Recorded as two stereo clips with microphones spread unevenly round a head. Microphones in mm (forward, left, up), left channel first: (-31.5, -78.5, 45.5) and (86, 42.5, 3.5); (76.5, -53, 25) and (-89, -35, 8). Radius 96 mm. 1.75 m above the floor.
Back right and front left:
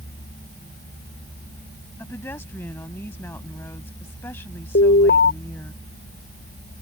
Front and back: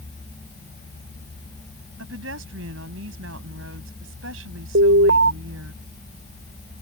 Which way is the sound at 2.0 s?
150° left.